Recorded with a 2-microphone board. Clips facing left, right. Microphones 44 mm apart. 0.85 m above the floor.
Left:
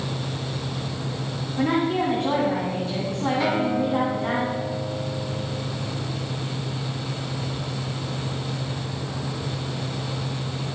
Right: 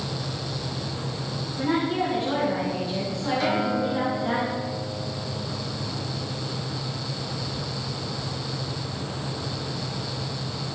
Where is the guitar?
15° left (ahead or behind), 2.5 m.